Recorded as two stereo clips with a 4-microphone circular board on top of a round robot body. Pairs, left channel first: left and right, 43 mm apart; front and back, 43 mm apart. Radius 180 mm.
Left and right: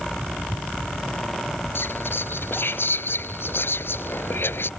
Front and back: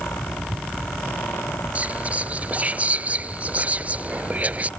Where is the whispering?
120° left.